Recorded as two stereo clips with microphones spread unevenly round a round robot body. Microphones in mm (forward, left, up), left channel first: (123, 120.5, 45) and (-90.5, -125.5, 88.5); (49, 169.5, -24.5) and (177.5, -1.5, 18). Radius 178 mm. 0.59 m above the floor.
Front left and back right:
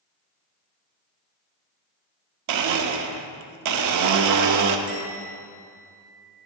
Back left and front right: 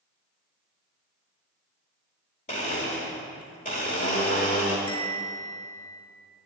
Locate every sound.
2.5 s a blender: 170° right, 0.7 m
4.9 s a bell: 150° left, 1.7 m